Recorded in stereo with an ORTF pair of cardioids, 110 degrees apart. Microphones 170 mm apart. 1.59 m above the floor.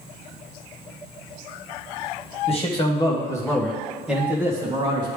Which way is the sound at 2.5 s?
35° left.